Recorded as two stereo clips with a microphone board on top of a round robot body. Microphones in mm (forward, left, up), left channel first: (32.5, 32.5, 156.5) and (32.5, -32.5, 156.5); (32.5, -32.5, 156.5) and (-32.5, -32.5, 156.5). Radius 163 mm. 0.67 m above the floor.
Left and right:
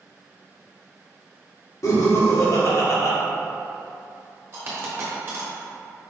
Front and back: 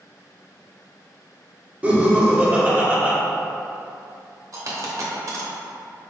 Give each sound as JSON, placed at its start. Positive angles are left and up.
{"t": 1.8, "sound": "laughter", "azimuth_deg": 115, "distance_m": 1.8}
{"t": 4.5, "sound": "a dropped coin", "azimuth_deg": -145, "distance_m": 1.0}